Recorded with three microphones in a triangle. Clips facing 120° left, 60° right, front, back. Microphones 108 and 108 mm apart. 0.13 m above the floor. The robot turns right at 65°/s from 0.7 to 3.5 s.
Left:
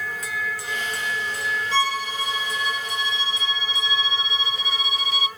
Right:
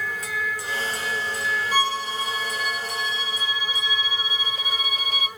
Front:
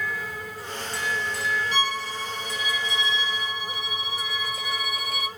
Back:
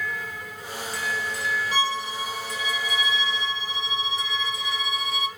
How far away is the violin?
About 1.6 m.